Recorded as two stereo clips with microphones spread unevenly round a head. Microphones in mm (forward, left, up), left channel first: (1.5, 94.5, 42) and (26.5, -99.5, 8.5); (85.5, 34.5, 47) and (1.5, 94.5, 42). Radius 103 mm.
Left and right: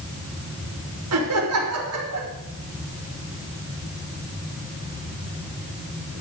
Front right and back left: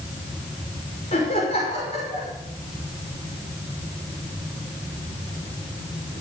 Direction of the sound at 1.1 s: 90° right.